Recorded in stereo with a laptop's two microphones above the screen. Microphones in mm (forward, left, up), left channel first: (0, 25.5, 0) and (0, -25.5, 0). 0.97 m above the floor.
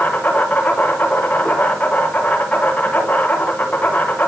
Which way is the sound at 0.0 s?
40° left (ahead or behind).